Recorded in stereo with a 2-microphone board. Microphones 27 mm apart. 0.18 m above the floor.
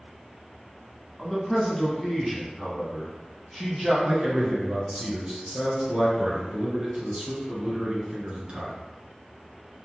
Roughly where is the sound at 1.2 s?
Centre.